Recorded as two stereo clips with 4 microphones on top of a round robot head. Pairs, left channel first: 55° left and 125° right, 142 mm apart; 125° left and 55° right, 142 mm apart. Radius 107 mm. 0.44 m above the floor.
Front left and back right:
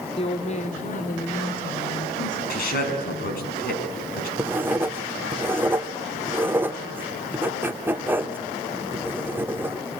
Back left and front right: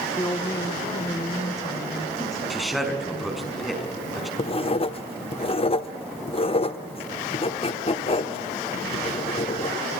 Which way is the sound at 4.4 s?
160° left.